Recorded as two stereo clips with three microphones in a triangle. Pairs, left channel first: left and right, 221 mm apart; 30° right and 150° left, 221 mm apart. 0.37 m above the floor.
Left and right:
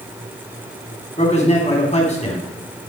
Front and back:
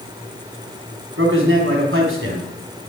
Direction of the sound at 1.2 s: 145° left.